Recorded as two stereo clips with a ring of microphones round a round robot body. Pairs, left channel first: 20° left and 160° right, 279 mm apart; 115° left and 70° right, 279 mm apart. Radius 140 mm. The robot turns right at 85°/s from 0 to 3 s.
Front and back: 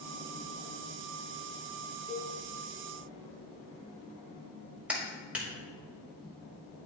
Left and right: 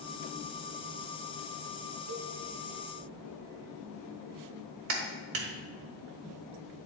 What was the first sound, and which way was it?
A cowbell, 70° right.